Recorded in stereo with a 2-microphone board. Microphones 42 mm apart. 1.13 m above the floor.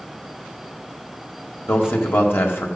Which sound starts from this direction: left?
A man speaking, at 1.7 s.